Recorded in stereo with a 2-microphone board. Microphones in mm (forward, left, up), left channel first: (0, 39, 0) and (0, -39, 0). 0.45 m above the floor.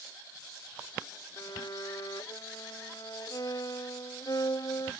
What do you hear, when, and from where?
1.4 s a violin: 50° left (ahead or behind)